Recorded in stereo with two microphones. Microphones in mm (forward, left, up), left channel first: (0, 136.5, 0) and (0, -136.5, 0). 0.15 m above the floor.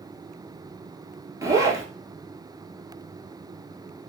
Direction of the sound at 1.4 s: 10° right (ahead or behind).